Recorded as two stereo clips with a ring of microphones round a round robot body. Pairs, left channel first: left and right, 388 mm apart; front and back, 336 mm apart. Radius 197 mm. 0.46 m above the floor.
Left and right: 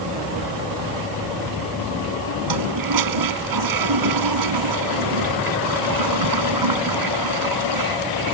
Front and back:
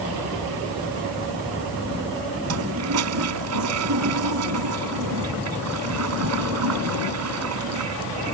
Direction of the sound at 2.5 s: 130° right.